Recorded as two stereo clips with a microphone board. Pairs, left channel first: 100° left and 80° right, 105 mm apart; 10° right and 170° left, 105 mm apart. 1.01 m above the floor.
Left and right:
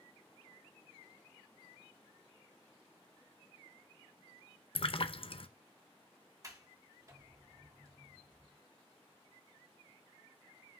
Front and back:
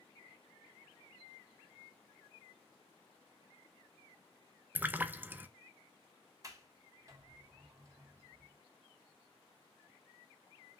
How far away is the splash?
About 0.6 m.